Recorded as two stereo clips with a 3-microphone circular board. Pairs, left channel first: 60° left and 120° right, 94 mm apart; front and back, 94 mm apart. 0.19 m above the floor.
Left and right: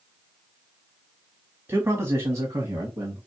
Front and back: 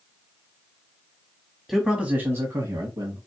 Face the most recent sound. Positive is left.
turn(degrees=-170)